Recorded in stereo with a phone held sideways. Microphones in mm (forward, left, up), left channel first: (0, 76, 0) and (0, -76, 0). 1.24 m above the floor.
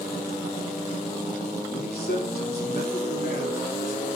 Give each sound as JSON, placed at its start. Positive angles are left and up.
{"t": 1.7, "sound": "a man speaking", "side_deg": 75, "distance_m": 3.5}